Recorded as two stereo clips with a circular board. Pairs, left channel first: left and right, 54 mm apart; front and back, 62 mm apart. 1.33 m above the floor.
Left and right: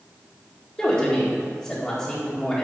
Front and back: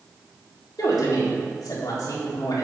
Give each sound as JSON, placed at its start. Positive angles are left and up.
{"t": 0.8, "sound": "a woman speaking", "azimuth_deg": 15, "distance_m": 1.9}